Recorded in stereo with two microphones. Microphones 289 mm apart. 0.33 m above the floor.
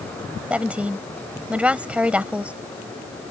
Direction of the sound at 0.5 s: 5° right (ahead or behind).